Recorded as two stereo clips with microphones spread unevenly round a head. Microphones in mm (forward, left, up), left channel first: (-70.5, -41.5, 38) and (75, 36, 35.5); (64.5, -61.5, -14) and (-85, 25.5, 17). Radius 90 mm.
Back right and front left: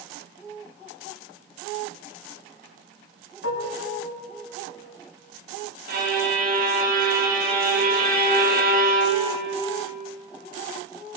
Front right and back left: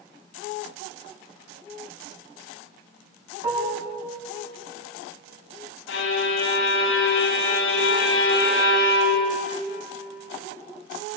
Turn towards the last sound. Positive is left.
turn(degrees=-5)